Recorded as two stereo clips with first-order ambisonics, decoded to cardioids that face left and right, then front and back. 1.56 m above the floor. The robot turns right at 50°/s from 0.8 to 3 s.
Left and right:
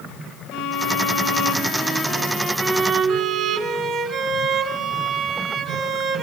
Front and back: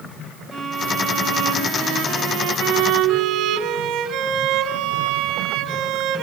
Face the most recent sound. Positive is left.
turn(degrees=-160)